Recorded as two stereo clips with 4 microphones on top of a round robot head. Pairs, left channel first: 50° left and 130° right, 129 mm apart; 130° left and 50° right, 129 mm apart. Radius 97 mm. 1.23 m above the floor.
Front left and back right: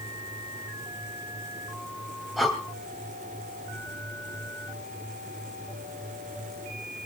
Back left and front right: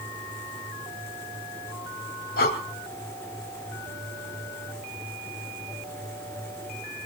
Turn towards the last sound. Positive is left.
turn(degrees=140)